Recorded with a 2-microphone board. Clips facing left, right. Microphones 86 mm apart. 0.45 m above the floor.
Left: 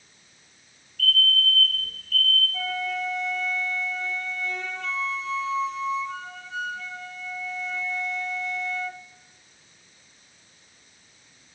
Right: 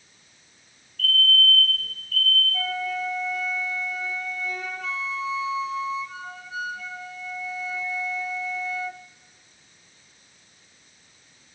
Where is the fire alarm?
Centre (ahead or behind), 6.5 m.